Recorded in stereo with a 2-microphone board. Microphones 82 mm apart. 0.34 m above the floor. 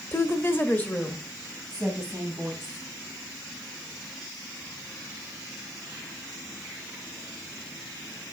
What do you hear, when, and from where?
0.1 s a woman speaking: 30° left (ahead or behind), 1.2 m; by 2.9 s 5° right (ahead or behind), 3 m